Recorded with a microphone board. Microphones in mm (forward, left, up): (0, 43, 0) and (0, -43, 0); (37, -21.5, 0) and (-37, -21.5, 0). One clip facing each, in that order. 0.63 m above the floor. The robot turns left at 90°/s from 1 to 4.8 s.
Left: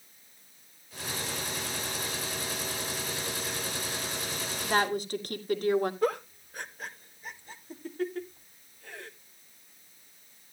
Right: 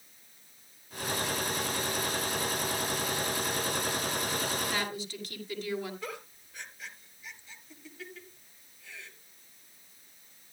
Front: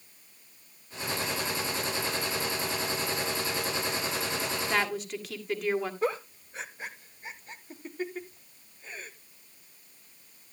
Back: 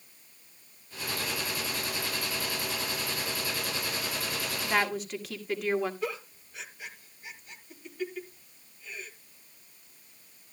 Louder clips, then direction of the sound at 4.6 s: Left 7 dB, back 3 dB; 105° left.